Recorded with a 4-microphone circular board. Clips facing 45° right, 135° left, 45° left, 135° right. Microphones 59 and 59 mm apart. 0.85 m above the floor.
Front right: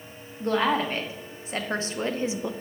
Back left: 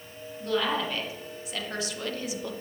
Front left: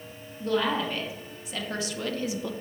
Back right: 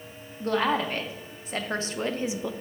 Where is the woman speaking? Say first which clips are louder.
Front right 4 dB, back right 1 dB; 95° right, 1.4 m; by 2.5 s 75° right, 0.5 m.